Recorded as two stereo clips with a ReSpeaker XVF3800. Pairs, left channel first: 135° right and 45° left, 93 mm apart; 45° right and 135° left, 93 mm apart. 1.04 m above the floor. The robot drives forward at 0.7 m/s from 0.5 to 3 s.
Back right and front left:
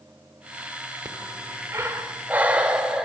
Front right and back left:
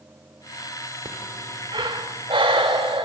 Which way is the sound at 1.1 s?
90° left.